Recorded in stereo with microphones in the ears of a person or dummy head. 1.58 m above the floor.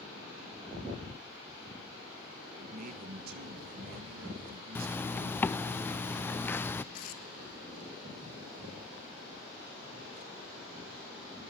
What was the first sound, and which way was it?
A man speaking, 55° right (ahead or behind).